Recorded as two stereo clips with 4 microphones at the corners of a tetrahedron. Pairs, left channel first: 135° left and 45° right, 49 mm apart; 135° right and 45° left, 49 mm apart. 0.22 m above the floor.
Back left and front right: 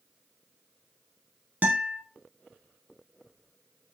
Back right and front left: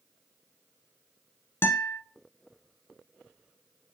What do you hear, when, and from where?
1.6 s a guitar: 100° right, 0.8 m